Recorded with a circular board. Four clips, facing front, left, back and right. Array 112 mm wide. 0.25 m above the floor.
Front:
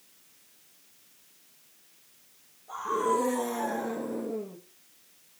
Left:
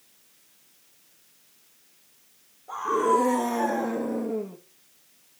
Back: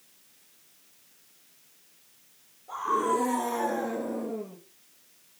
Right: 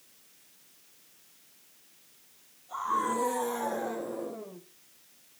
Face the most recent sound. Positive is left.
turn(degrees=85)